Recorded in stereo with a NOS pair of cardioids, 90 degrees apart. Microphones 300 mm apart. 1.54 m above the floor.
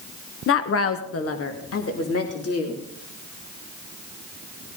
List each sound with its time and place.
0.5 s a woman speaking: 45° left, 1.1 m; by 2.8 s 50° left, 3.5 m